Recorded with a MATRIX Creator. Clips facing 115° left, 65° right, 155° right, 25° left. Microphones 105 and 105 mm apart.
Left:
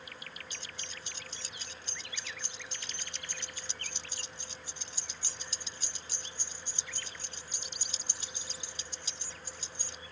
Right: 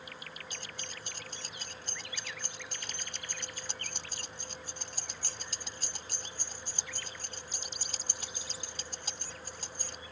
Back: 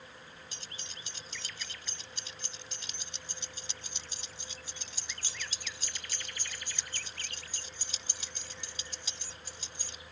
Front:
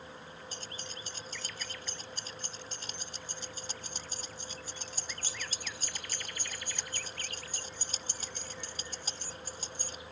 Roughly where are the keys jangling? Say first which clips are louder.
Right 2 dB, front 5 dB; ahead right.